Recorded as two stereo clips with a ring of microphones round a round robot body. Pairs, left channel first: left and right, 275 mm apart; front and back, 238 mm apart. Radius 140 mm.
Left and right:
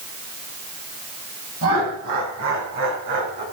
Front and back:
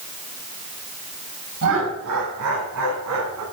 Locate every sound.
1.6 s laughter: 135° right, 8 m; by 3.4 s 140° right, 9.5 m